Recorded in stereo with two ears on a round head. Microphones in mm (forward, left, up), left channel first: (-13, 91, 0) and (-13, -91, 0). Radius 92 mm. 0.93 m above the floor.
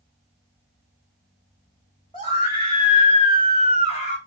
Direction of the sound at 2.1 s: 25° left (ahead or behind).